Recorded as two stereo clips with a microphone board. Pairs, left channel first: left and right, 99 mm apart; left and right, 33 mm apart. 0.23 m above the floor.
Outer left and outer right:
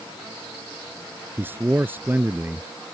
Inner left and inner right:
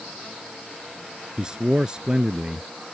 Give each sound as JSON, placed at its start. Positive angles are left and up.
{"t": 1.4, "sound": "a man speaking", "side_deg": -20}